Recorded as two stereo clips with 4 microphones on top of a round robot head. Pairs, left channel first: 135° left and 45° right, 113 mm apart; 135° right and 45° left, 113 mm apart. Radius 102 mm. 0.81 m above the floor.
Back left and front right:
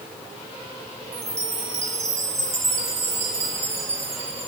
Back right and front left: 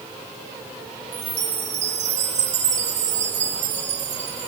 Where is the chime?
25° left, 4 m.